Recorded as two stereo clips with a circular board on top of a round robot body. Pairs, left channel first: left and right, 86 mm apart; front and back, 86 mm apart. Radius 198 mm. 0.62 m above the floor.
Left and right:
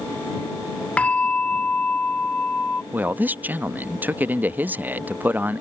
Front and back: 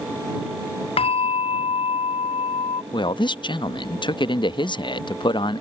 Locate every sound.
1.0 s a bell: 10° left
2.9 s a man speaking: 20° right